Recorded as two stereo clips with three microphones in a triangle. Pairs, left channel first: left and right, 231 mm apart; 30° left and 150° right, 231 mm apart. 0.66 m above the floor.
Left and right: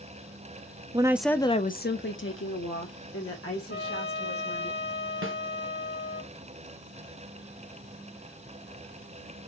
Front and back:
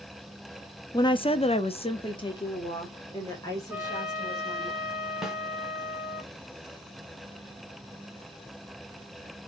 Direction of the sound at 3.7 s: 125° left.